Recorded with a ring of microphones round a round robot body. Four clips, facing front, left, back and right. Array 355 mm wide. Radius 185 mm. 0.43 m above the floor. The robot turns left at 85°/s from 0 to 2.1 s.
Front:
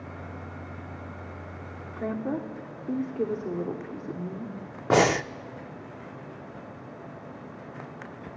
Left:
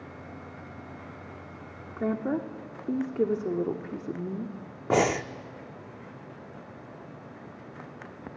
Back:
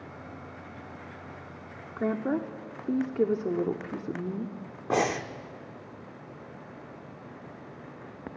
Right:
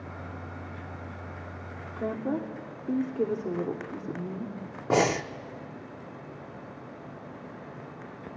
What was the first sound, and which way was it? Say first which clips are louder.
A woman speaking: left 2 dB, back 2 dB; 160° left.